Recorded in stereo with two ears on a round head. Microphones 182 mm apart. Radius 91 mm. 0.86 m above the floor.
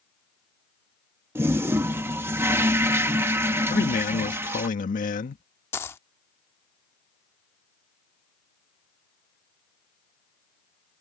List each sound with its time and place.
1.4 s a toilet flushing: 10° right (ahead or behind)
3.7 s a man speaking: 40° left (ahead or behind)
5.7 s a dropped coin: 10° left (ahead or behind)